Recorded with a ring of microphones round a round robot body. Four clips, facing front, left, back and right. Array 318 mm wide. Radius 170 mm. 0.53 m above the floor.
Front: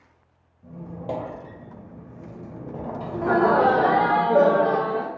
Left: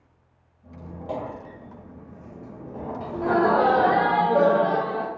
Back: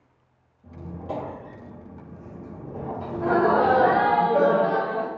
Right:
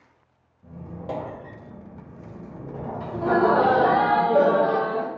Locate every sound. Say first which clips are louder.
0.6 s a squeak: even, front 2 dB; 25° right, 1.3 m
3.1 s laughter: right 1 dB, front 1 dB; 25° right, 0.7 m